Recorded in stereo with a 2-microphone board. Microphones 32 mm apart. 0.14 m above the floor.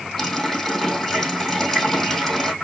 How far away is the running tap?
About 3 m.